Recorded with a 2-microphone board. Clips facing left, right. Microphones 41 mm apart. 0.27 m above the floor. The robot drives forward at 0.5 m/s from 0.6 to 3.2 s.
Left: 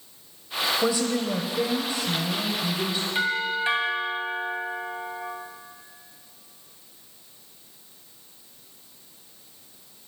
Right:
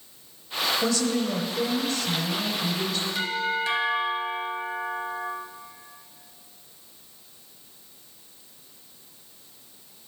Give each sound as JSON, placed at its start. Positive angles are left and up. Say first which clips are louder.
{"t": 0.8, "sound": "a woman speaking", "louder": "left 1 dB", "side_deg": 15, "distance_m": 1.1}
{"t": 3.1, "sound": "a doorbell", "louder": "left 2 dB", "side_deg": 30, "distance_m": 2.5}